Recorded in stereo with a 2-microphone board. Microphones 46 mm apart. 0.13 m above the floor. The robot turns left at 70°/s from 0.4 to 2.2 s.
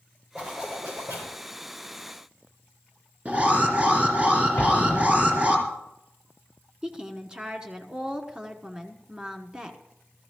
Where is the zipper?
30° right, 6.5 m; by 1.4 s 95° right, 6.5 m.